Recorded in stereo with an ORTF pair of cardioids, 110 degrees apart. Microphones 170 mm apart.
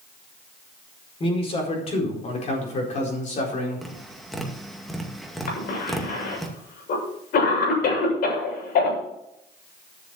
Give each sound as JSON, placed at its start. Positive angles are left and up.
{"t": 1.2, "sound": "a man speaking", "azimuth_deg": 35, "distance_m": 5.0}
{"t": 3.8, "sound": "tapping", "azimuth_deg": 0, "distance_m": 2.0}
{"t": 5.5, "sound": "a cough", "azimuth_deg": 60, "distance_m": 7.5}